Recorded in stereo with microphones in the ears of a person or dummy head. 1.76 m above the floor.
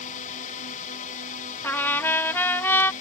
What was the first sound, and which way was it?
A drone, 40° left (ahead or behind).